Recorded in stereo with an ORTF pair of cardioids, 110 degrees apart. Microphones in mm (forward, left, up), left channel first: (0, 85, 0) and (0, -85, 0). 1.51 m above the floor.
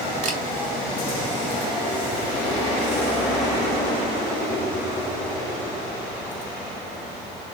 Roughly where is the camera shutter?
Ahead right.